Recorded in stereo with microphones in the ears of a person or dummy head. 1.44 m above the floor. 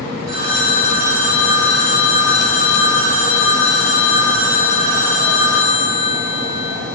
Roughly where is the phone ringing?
Right.